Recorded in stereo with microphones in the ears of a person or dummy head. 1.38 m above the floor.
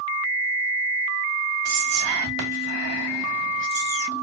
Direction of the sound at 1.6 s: 65° right (ahead or behind).